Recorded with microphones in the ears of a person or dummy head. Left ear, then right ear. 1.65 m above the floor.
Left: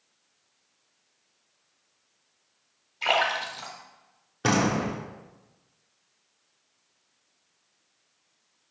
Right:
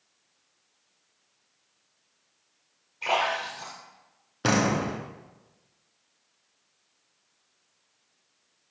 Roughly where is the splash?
Left.